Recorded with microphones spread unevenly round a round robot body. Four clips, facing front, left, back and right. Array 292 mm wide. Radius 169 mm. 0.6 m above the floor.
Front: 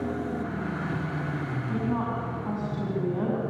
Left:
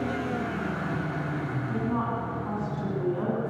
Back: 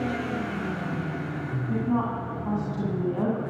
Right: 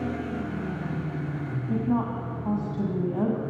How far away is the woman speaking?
About 5 m.